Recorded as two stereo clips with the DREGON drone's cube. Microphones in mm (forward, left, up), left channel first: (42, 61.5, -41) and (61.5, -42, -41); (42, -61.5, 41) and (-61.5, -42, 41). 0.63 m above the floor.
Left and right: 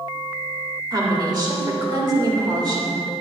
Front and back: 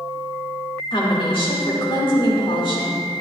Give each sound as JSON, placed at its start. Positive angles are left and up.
{"t": 0.9, "sound": "a woman speaking", "azimuth_deg": -35, "distance_m": 2.5}